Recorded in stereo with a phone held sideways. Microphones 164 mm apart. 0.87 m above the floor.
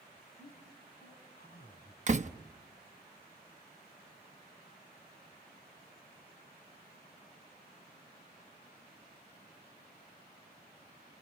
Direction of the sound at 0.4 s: 65° left (ahead or behind).